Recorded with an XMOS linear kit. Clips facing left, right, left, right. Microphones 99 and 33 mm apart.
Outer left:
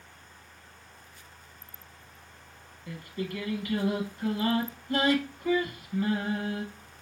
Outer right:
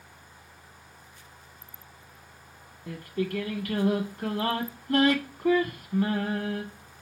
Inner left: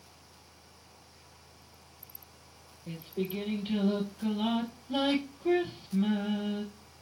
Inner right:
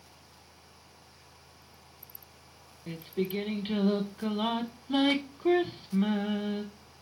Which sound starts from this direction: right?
Singing, at 2.9 s.